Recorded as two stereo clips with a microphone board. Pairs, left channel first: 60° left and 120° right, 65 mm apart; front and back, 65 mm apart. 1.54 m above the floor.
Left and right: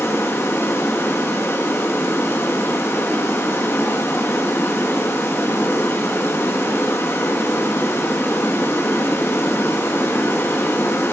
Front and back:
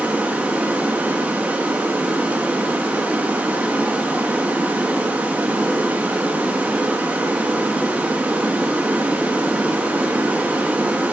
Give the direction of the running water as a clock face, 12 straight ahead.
8 o'clock.